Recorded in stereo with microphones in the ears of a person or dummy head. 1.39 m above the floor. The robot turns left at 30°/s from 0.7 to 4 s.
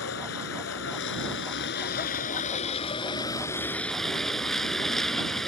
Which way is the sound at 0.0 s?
105° left.